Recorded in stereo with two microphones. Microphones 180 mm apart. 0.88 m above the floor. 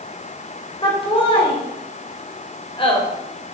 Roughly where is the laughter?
Left.